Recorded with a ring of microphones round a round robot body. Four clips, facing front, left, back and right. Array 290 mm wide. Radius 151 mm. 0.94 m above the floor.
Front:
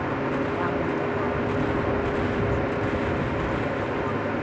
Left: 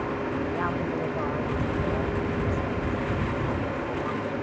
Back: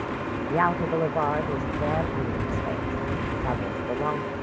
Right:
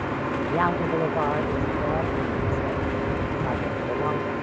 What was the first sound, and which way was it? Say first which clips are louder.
A woman speaking: right 5 dB, back 2 dB; 145° right.